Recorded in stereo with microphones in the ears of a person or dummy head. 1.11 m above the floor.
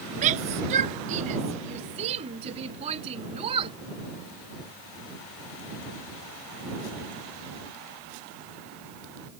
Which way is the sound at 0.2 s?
45° right (ahead or behind).